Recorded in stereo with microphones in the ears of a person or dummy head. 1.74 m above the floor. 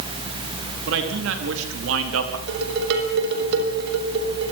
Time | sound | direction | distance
0.9 | a man speaking | 65° right (ahead or behind) | 4.5 m
2.5 | dishes clattering | 60° right (ahead or behind) | 6 m